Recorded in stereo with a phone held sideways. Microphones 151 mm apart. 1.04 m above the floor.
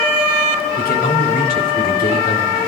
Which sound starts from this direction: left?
A man speaking, at 0.8 s.